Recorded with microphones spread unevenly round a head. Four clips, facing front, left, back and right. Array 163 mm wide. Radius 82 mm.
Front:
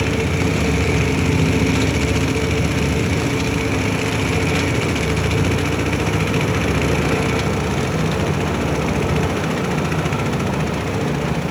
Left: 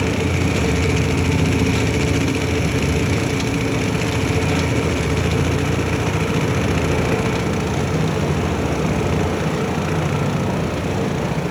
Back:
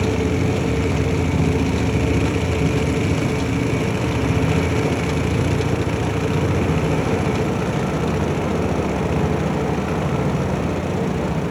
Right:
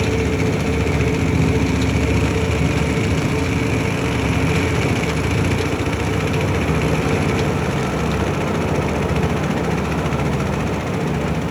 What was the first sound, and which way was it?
Only background noise.